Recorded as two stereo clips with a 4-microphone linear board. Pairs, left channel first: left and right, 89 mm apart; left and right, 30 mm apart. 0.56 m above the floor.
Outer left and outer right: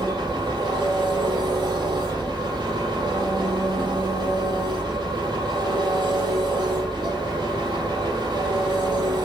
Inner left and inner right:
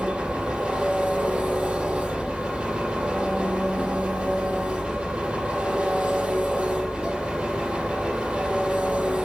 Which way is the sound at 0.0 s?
50° right (ahead or behind).